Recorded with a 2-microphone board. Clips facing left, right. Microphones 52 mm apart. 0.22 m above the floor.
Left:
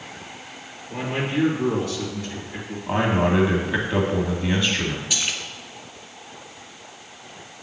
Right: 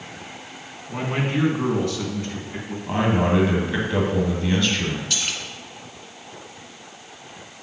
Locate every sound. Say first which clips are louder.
0.9 s a man speaking: right 1 dB; 45° right (ahead or behind), 1.9 m
2.9 s a man speaking: even; 15° left (ahead or behind), 1.3 m
5.1 s a splash: left 1 dB; 10° left (ahead or behind), 1.3 m